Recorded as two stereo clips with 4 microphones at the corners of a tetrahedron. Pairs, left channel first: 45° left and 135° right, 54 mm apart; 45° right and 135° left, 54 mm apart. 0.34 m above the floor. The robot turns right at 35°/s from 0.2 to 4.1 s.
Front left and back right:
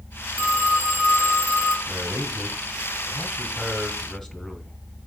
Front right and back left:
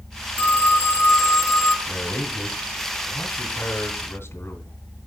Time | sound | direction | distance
0.4 | a phone ringing | 110° right | 3 m
1.9 | a man speaking | 105° right | 1.9 m